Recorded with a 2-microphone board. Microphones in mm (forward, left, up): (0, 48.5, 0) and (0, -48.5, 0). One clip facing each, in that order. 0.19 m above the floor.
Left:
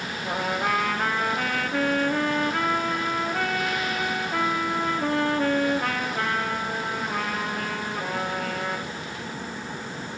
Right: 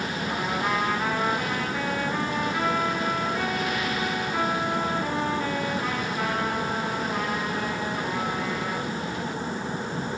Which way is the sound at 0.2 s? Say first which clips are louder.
Left 2 dB; 65° left (ahead or behind).